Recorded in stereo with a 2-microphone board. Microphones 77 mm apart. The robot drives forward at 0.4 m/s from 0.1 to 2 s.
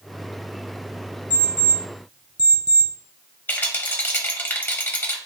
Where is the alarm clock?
75° right (ahead or behind), 1.8 m; by 2.9 s 80° right, 1.8 m.